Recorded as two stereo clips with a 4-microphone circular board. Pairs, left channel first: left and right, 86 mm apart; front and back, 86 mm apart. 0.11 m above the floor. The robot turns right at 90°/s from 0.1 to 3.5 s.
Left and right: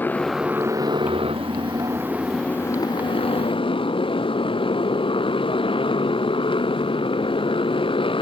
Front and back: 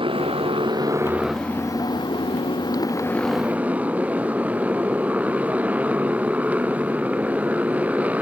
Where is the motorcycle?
160° left; by 8.2 s 105° left.